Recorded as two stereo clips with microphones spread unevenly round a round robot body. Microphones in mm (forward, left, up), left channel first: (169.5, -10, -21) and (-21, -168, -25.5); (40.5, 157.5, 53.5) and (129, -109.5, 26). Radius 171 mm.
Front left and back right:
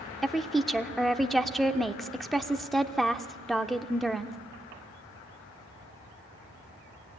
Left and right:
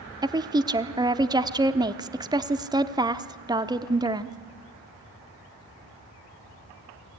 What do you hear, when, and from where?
0.2 s a woman speaking: 50° right, 0.7 m